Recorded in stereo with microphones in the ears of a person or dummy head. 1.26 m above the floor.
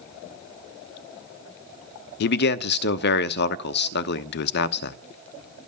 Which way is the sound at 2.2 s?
65° left (ahead or behind).